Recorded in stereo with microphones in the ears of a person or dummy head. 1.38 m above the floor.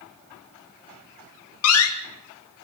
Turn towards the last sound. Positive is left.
turn(degrees=80)